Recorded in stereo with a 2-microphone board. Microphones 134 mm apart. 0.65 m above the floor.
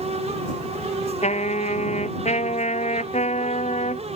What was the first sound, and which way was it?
A trumpet, 55° left (ahead or behind).